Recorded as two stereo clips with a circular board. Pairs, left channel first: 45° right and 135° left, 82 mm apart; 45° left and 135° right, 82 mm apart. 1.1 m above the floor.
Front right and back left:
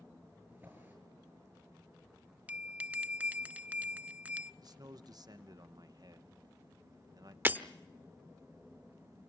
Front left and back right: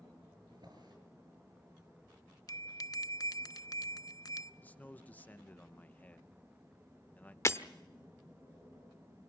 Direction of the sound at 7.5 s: 80° left.